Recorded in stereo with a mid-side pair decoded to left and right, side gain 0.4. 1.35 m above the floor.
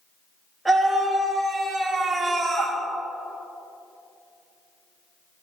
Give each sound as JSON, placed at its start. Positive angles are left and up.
{"t": 0.7, "sound": "a scream", "azimuth_deg": -15, "distance_m": 3.0}